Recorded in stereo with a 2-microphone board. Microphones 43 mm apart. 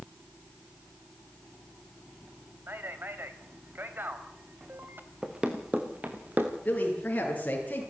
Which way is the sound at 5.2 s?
15° right (ahead or behind).